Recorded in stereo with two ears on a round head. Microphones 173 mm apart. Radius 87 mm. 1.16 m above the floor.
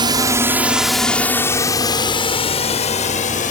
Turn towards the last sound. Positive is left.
turn(degrees=45)  # may be behind; listen again after turning